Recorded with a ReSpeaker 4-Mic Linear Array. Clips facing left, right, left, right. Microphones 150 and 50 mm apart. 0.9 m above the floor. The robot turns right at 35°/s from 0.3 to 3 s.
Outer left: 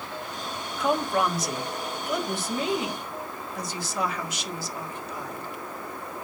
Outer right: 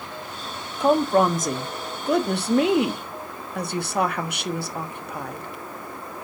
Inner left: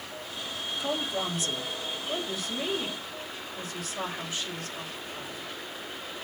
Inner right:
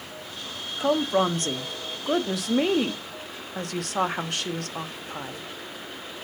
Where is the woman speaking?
150° right, 1.0 m; by 5.5 s 70° right, 1.0 m.